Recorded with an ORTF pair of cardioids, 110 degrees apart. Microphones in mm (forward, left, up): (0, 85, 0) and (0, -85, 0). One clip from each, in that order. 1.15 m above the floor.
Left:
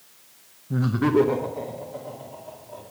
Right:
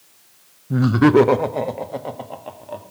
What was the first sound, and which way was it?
Laughter, 20° right.